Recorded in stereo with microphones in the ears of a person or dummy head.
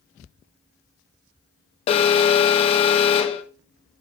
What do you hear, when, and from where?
1.9 s an alarm: 30° left (ahead or behind), 1.3 m